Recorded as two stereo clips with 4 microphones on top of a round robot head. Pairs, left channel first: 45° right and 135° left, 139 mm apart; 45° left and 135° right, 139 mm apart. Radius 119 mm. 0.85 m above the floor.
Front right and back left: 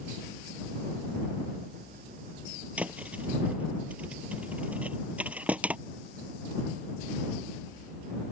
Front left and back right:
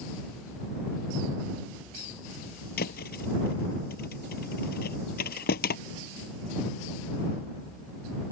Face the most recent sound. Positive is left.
turn(degrees=55)